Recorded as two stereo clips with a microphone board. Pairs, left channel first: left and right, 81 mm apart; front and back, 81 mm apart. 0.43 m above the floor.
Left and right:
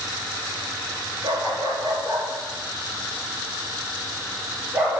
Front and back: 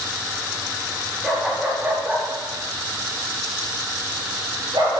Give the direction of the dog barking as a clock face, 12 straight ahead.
3 o'clock.